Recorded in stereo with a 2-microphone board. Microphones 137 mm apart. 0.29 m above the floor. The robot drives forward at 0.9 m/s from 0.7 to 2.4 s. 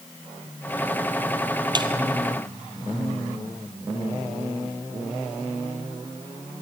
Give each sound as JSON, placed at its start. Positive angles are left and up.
{"t": 1.8, "sound": "a snare drum", "side_deg": -35, "distance_m": 2.5}